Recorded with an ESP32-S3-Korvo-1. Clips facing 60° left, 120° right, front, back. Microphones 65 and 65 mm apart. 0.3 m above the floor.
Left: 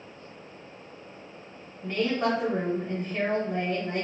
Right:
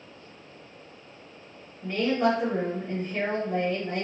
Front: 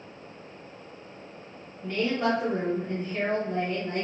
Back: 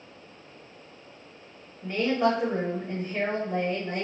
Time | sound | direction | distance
1.8 | a woman speaking | 160° left | 0.9 m